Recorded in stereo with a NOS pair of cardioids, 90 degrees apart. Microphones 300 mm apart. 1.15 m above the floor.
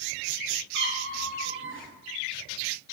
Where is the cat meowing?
45° right, 0.9 m.